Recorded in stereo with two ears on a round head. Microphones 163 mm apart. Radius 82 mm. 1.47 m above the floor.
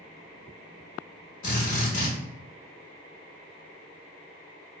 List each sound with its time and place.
1.4 s a drill: 45° left (ahead or behind), 1.2 m